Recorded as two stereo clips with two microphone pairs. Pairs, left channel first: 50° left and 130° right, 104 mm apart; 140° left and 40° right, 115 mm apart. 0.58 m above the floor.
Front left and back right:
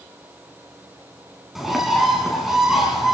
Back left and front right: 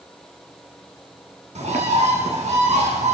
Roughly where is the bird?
Ahead right.